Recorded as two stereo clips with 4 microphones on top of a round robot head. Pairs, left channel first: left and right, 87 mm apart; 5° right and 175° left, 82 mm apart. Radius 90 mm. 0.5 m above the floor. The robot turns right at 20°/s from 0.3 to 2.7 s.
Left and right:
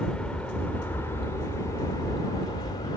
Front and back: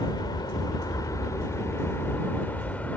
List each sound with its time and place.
0.0 s an aircraft: 15° left; by 3.0 s 60° left